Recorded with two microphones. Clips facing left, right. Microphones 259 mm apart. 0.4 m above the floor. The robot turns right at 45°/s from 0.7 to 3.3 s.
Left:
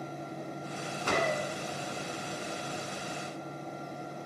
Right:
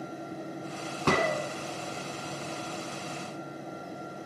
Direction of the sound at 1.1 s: 75° right (ahead or behind).